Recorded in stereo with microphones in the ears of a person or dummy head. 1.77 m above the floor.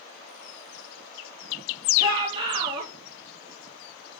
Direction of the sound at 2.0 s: 30° right (ahead or behind).